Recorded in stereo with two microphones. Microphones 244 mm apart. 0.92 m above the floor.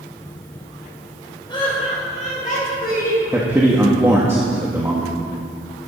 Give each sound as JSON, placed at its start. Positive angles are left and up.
{"t": 1.5, "sound": "laughter", "side_deg": 20, "distance_m": 3.5}
{"t": 3.3, "sound": "a man speaking", "side_deg": -10, "distance_m": 1.5}